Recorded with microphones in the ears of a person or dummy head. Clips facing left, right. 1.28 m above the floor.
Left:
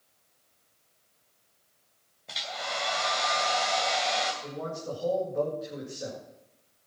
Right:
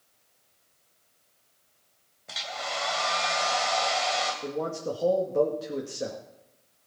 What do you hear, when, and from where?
2.3 s a hair dryer: centre (ahead or behind), 2.5 m
4.4 s a man speaking: 65° right (ahead or behind), 2.5 m